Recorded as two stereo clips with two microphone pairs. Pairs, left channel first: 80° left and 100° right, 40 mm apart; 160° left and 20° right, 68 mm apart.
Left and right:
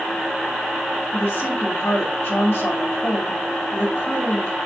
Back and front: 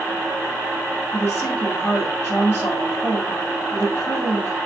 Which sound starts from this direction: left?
A woman speaking, at 1.1 s.